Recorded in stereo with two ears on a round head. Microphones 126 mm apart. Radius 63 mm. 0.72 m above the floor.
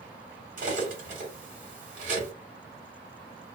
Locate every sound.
0.6 s cutlery clinking: 65° right (ahead or behind), 1.4 m